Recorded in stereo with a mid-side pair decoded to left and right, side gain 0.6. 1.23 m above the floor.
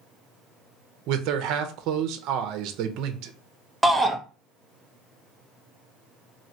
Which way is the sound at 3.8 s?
10° right.